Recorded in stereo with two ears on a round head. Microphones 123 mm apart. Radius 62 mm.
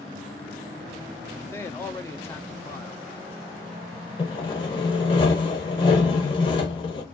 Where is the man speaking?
20° left (ahead or behind), 0.6 m.